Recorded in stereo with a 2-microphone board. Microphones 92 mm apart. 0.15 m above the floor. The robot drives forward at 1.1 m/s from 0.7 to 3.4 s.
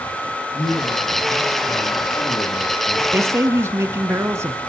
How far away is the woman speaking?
About 1.3 m.